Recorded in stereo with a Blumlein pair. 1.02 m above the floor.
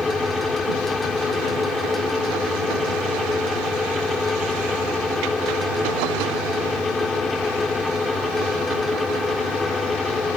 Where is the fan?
10° left.